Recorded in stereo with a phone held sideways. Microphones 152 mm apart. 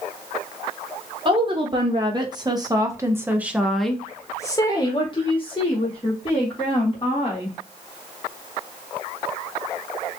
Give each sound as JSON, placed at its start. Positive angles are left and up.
{"t": 1.2, "sound": "a woman speaking", "side_deg": -35, "distance_m": 1.6}